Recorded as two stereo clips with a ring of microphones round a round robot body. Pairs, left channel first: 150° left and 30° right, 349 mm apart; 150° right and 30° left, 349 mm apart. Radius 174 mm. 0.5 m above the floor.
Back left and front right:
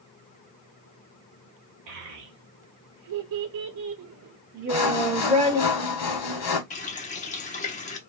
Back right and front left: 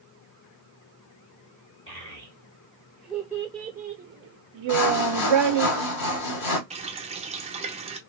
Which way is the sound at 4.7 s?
175° right.